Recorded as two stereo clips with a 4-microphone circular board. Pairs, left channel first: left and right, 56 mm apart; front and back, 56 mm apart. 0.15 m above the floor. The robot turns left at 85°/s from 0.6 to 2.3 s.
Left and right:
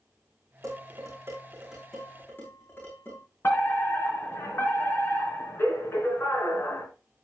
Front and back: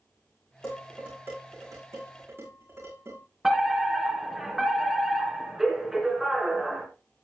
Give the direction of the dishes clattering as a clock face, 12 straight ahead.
3 o'clock.